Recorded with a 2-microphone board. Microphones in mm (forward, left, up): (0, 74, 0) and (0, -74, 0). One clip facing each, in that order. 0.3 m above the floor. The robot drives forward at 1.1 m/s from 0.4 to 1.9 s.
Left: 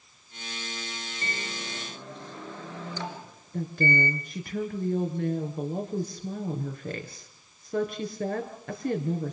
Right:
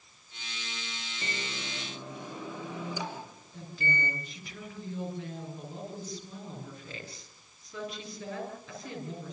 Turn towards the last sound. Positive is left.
turn(degrees=55)  # may be behind; listen again after turning